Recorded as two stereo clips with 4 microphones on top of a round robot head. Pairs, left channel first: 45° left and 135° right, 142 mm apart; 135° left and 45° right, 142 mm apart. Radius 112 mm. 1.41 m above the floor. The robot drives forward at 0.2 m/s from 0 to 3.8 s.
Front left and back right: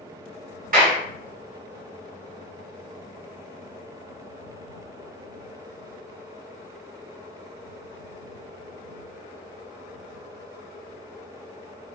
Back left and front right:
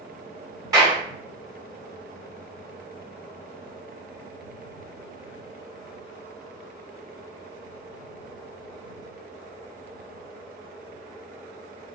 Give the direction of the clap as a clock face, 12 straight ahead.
4 o'clock.